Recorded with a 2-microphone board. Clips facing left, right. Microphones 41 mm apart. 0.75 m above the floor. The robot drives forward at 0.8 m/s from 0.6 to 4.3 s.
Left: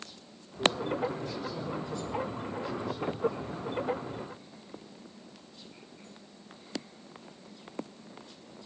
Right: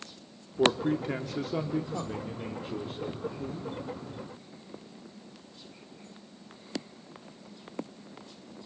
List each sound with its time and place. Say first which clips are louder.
0.6 s a man speaking: right 3 dB; 65° right (ahead or behind), 1.3 m; by 3.7 s 30° right (ahead or behind), 2.5 m